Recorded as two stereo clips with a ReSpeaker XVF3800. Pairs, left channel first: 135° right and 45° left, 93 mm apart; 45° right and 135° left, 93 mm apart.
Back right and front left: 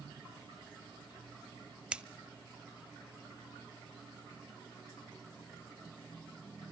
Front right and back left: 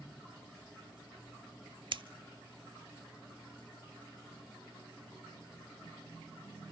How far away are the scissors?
About 0.6 m.